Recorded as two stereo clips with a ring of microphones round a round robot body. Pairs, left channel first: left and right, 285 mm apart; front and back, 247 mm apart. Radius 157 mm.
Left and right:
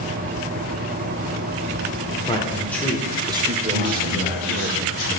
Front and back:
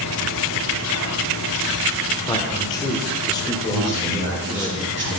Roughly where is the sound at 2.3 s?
Ahead left.